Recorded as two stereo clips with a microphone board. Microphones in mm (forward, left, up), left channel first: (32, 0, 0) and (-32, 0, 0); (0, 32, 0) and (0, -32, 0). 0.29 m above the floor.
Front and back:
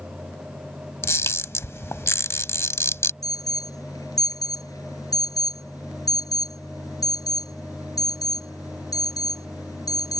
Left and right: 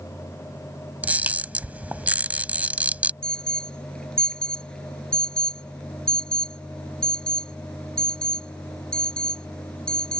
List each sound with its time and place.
1.0 s a camera shutter: 30° right
3.2 s an alarm: 15° left